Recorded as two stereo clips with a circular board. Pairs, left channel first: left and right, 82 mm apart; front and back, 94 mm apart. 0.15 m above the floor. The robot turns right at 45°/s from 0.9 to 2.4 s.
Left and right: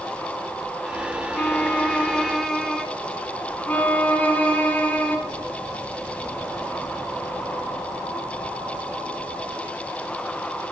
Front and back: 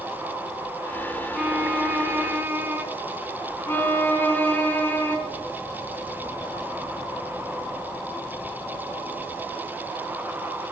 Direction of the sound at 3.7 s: 40° left.